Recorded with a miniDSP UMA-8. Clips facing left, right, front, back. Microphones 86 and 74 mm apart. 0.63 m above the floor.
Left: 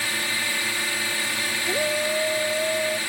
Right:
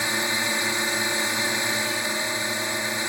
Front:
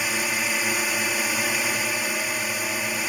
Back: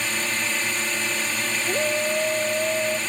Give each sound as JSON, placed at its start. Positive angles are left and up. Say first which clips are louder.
{"t": 0.0, "sound": "a drone", "louder": "right 2 dB, front 1 dB", "azimuth_deg": -65}
{"t": 1.7, "sound": "a shout", "louder": "left 3 dB, back 3 dB", "azimuth_deg": 135}